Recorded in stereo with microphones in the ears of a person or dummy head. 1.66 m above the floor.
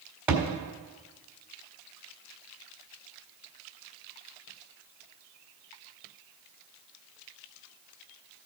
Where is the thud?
10° right (ahead or behind), 1.8 m.